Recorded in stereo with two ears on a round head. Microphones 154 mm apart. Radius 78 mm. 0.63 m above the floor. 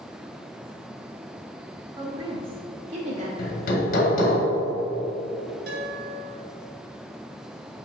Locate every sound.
2.0 s a woman speaking: 20° right (ahead or behind), 1.2 m; by 3.3 s 40° right (ahead or behind), 1.7 m
3.4 s hammering: 50° left (ahead or behind), 1.6 m
5.7 s a guitar: 55° right (ahead or behind), 2.5 m